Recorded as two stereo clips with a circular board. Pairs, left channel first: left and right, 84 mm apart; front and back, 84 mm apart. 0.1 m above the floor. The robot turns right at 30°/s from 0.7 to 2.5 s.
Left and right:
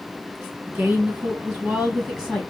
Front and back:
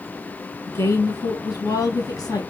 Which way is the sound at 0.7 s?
35° right.